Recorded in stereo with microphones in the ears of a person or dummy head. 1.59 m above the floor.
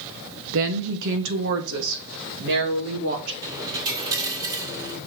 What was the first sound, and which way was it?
A woman speaking, 70° right (ahead or behind).